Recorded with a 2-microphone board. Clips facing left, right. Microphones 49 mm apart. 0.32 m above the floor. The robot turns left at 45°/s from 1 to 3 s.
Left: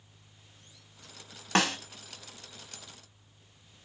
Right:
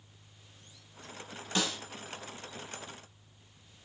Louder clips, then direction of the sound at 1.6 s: Left 6 dB; 65° left (ahead or behind).